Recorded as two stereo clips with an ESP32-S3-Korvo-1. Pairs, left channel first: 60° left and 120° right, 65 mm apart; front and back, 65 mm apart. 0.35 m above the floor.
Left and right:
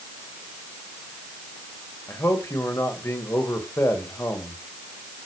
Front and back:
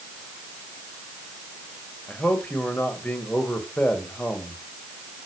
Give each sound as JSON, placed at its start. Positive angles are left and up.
{"t": 2.1, "sound": "a man speaking", "azimuth_deg": 55, "distance_m": 1.9}